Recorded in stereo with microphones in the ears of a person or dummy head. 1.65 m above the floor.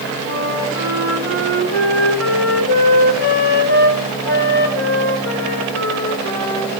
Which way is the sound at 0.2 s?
10° left (ahead or behind).